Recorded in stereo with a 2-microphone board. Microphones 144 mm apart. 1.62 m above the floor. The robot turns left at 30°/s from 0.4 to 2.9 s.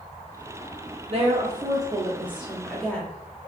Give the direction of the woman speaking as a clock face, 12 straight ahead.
4 o'clock.